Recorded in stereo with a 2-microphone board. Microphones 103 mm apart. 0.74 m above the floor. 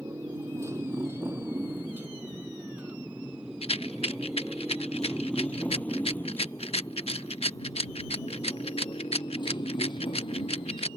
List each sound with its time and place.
0.0 s a motorcycle: 30° right (ahead or behind); by 11.0 s 55° left (ahead or behind)
3.6 s a rattle: 75° left (ahead or behind)